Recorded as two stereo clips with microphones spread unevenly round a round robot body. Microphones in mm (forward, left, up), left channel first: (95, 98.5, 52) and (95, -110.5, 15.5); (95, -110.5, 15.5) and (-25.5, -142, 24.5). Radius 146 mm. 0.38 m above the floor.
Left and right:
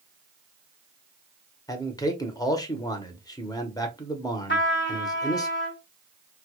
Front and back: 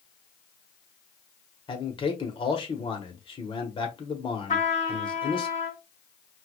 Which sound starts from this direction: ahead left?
A trumpet, at 4.5 s.